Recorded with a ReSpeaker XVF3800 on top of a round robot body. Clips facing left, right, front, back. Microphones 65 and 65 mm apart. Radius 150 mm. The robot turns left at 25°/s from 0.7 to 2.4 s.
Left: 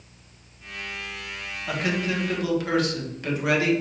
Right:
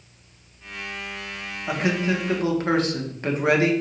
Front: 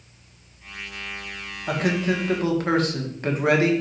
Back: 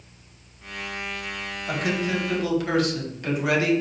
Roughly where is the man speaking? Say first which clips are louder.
Right 3 dB, front 3 dB; ahead right.